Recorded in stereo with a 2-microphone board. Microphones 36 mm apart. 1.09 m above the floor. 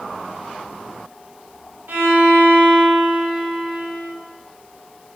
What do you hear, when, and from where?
1.9 s a violin: 70° right (ahead or behind), 0.7 m